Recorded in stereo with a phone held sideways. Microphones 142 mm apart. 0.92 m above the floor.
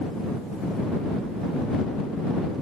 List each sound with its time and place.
Only background noise.